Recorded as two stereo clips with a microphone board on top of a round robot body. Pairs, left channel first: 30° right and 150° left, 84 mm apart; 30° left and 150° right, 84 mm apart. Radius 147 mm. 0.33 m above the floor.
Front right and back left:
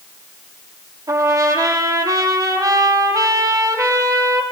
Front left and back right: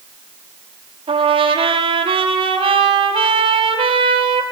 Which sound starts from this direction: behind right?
A trumpet, at 1.1 s.